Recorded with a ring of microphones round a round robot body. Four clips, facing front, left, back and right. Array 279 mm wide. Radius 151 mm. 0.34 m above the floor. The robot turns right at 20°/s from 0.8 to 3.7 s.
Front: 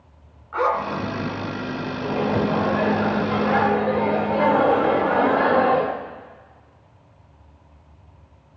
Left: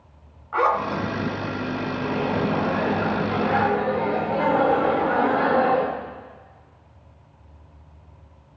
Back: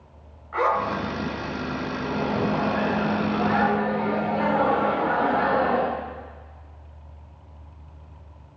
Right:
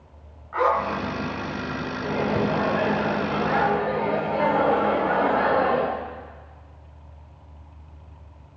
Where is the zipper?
105° left, 2 m; by 1.0 s 110° left, 2 m.